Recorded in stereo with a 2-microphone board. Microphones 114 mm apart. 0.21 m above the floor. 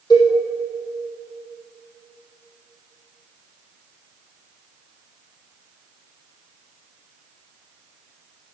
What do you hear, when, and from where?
0.1 s a cowbell: 40° left (ahead or behind), 4 m